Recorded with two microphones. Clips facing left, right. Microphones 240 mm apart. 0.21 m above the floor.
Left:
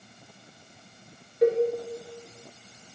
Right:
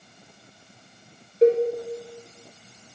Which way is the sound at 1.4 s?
30° right (ahead or behind).